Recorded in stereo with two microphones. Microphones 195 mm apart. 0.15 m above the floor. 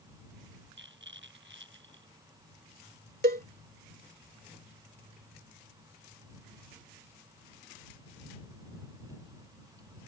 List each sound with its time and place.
0.8 s a rattle: 70° right (ahead or behind)
3.2 s a cowbell: 50° right (ahead or behind)